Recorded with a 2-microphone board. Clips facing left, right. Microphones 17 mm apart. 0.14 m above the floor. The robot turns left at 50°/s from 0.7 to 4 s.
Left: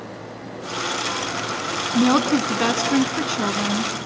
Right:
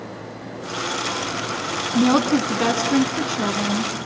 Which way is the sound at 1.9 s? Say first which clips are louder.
Even; 10° left (ahead or behind).